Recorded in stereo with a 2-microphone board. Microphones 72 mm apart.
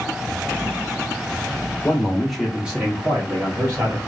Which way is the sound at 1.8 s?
20° left (ahead or behind).